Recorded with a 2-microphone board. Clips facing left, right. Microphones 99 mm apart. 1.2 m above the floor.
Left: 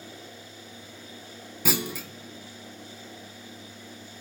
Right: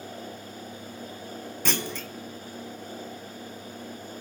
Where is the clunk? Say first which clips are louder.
Left 2 dB; 5° left (ahead or behind), 0.6 m.